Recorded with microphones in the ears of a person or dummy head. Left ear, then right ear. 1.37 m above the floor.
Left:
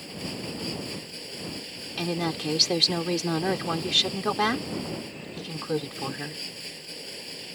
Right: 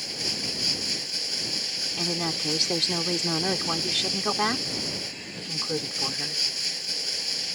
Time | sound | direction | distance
0.0 | running water | 50° right (ahead or behind) | ?
2.0 | a woman speaking | 5° right (ahead or behind) | ?